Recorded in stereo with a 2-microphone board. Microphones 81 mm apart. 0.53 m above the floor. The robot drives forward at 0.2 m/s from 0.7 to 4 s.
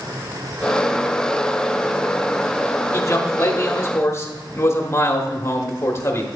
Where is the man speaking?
40° left (ahead or behind), 1.1 m; by 6.3 s 35° left (ahead or behind), 1.2 m.